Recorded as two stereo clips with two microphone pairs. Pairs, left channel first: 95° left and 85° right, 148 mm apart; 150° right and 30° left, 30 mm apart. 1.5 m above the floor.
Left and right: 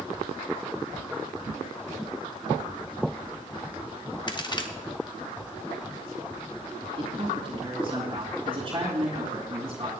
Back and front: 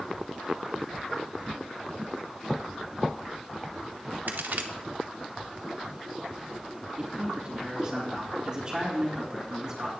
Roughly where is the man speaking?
Ahead right.